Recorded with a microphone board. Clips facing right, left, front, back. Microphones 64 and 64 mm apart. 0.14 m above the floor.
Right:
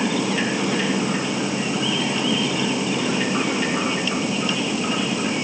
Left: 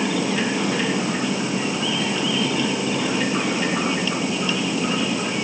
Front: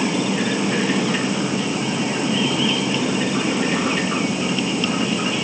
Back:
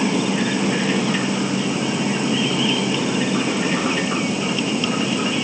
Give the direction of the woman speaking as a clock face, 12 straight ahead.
I don't hear a woman speaking.